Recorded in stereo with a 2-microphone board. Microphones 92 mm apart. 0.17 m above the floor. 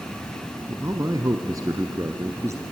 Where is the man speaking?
35° right (ahead or behind), 1.3 m.